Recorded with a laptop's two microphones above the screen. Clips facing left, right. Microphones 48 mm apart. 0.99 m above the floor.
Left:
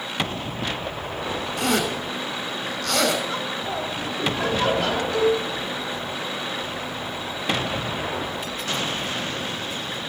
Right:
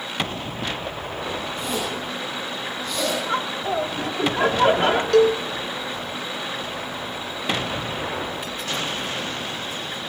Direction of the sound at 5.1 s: 70° right (ahead or behind).